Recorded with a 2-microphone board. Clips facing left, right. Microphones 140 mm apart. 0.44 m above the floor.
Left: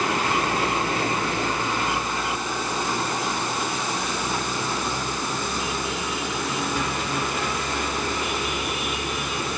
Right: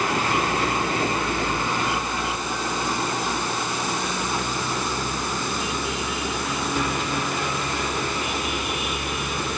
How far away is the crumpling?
No crumpling in this recording.